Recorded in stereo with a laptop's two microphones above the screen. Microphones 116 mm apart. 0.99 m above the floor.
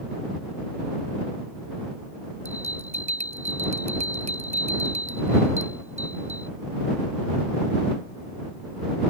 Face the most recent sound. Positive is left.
turn(degrees=-75)  # may be behind; listen again after turning